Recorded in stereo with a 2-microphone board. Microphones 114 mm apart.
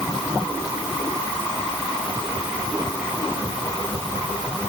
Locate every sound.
Only background noise.